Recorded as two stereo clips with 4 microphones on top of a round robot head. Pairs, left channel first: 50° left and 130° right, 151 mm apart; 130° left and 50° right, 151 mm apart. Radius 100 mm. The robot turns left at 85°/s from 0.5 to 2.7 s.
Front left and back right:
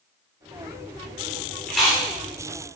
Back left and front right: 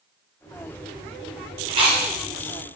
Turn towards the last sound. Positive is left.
turn(degrees=-115)